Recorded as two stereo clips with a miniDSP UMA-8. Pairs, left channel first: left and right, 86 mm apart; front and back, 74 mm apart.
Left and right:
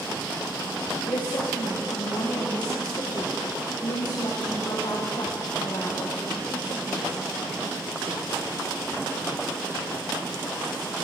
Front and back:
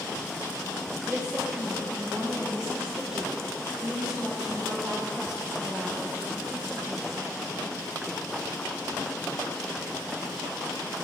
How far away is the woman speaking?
About 1.1 m.